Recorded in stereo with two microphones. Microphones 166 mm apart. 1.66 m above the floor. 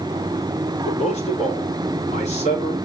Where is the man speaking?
40° left (ahead or behind), 4.5 m.